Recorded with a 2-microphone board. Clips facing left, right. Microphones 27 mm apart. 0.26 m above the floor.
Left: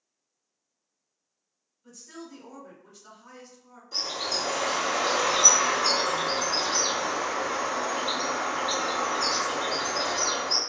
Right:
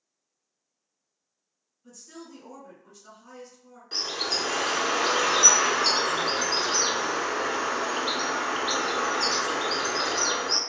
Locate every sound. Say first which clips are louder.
1.8 s a woman speaking: left 1 dB; 10° left (ahead or behind), 1.4 m
3.9 s a bird: right 1 dB; 70° right (ahead or behind), 0.8 m